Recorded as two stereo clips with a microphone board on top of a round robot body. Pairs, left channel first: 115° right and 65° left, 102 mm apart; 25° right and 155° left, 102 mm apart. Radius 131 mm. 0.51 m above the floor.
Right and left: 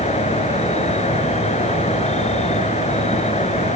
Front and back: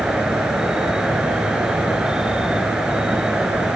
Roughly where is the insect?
Behind right.